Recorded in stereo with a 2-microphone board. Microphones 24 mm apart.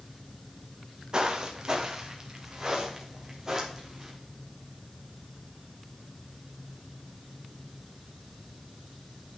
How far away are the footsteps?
About 1.9 m.